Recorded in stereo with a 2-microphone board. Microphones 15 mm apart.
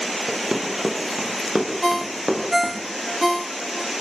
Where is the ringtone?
Centre (ahead or behind), 0.6 m.